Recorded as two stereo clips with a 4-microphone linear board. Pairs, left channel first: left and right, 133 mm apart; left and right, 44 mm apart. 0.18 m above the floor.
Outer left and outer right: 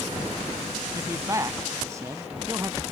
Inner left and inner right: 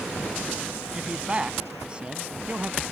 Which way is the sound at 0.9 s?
25° right (ahead or behind).